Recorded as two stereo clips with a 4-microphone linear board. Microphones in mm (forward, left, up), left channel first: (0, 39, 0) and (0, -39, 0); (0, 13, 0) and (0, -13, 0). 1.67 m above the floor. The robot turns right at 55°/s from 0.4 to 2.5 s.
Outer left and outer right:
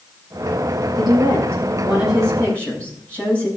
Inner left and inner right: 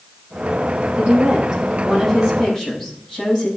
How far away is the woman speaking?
About 7 m.